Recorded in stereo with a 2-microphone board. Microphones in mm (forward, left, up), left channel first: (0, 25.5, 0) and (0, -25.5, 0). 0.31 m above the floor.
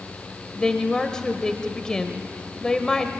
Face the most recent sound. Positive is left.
turn(degrees=15)  # may be behind; listen again after turning